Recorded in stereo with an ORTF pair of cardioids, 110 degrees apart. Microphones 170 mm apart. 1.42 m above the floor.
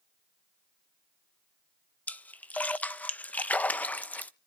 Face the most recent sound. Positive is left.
turn(degrees=10)